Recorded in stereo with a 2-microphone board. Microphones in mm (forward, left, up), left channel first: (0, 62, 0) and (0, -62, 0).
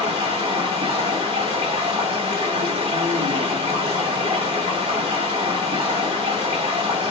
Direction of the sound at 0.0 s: 45° right (ahead or behind).